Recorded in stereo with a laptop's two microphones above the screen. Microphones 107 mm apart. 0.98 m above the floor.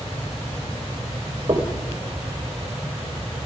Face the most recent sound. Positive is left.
turn(degrees=-45)  # may be behind; listen again after turning